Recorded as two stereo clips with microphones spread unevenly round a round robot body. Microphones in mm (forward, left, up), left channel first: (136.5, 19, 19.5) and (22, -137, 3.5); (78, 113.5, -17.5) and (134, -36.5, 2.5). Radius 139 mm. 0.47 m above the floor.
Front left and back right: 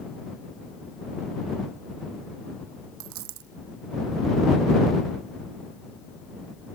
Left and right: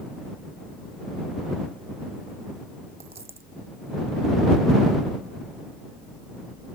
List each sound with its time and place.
3.0 s a dropped coin: 140° right